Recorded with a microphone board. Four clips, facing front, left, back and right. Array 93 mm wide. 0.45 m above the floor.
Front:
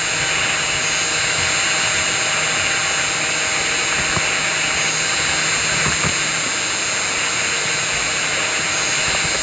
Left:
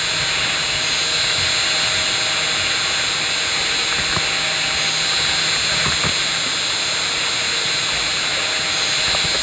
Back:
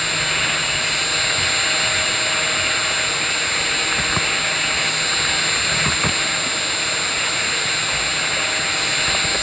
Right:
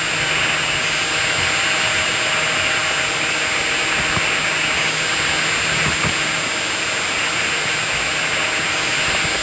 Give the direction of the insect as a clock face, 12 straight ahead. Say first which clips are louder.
Right 3 dB, front 1 dB; 9 o'clock.